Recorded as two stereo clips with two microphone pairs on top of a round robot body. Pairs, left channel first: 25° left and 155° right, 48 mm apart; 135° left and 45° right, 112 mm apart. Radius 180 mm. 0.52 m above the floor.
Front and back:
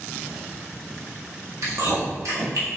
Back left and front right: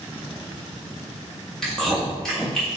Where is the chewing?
140° right, 1.6 m.